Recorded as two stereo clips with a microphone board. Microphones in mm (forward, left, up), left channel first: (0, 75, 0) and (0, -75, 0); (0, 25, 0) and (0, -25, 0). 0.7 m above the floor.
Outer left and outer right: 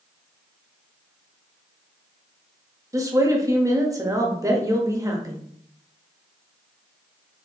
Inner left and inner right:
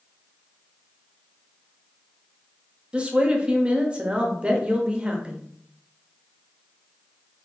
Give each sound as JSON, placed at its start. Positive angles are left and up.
{"t": 2.9, "sound": "a woman speaking", "side_deg": -20, "distance_m": 0.6}